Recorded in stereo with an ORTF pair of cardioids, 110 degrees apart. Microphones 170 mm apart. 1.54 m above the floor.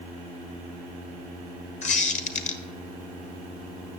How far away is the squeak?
About 1.6 m.